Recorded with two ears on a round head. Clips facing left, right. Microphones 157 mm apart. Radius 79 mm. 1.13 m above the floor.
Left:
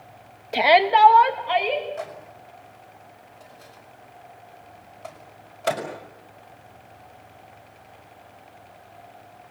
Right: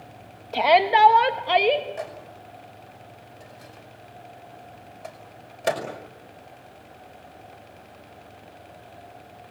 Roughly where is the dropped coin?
I don't hear a dropped coin.